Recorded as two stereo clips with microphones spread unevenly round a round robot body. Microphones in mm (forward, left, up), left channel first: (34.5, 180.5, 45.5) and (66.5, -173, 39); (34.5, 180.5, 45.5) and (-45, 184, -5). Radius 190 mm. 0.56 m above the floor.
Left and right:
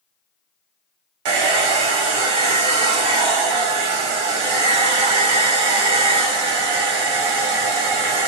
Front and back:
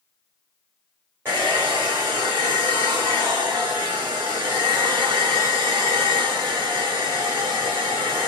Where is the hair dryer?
110° right, 0.8 m.